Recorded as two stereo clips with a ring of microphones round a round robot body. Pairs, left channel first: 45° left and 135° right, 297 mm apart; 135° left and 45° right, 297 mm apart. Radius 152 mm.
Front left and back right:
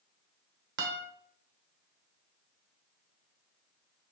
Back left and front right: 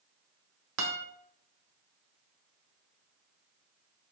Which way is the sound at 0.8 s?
85° right.